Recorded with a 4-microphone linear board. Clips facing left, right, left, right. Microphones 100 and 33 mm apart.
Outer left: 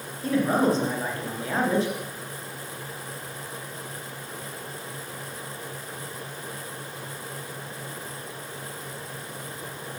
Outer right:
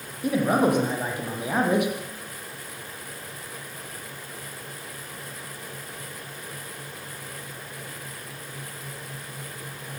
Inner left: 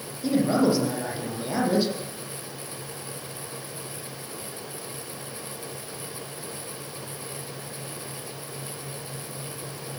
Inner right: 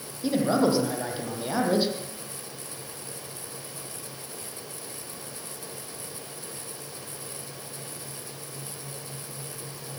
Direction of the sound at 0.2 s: 15° right (ahead or behind).